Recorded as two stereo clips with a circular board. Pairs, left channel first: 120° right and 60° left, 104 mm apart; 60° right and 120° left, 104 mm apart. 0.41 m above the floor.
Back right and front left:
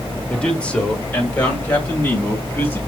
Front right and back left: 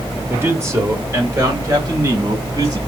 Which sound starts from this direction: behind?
A man speaking, at 0.3 s.